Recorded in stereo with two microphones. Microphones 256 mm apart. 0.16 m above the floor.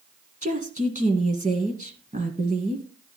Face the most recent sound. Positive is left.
turn(degrees=-30)  # may be behind; listen again after turning